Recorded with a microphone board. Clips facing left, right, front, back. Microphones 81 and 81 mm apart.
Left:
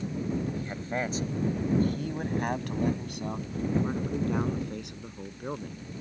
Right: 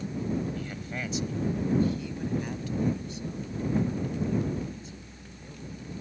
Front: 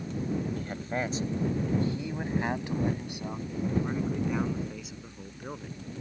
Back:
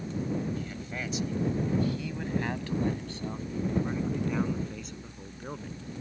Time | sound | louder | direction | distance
0.6 | a man speaking | left 4 dB, front 4 dB | 35° left | ?